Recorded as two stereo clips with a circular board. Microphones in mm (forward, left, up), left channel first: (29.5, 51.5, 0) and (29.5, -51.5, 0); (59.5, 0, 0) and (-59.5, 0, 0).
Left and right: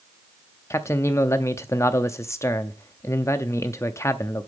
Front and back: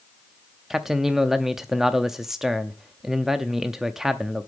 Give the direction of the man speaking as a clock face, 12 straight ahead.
9 o'clock.